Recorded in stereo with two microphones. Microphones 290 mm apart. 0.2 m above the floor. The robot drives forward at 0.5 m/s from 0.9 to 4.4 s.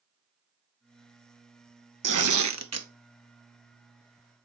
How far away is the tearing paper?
About 0.6 m.